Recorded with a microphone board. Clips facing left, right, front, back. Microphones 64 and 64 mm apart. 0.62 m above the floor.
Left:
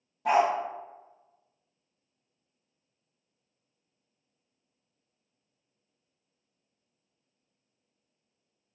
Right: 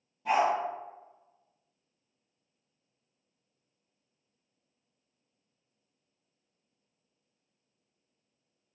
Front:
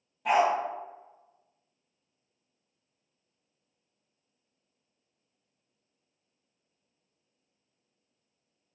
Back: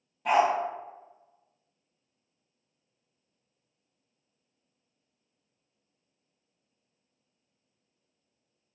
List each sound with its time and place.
0.2 s a dog barking: 90° left, 0.6 m